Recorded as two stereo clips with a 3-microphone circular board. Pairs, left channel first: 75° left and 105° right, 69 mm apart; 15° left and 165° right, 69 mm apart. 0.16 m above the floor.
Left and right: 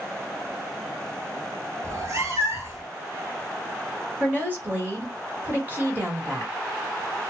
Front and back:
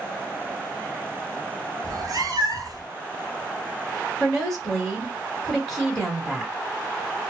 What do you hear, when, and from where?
1.8 s a cat meowing: 150° right, 0.9 m
4.2 s a woman speaking: 65° right, 1.5 m